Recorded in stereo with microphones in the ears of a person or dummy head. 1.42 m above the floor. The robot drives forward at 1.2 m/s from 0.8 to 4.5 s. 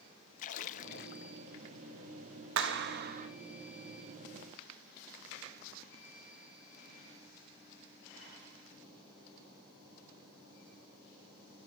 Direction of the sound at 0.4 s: 45° left (ahead or behind).